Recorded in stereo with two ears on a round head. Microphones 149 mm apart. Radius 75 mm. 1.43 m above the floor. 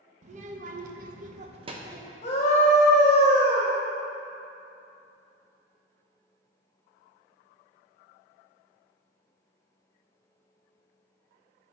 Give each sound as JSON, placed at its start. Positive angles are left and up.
{"t": 0.2, "sound": "a child speaking", "side_deg": -45, "distance_m": 1.1}
{"t": 2.2, "sound": "a scream", "side_deg": 40, "distance_m": 1.2}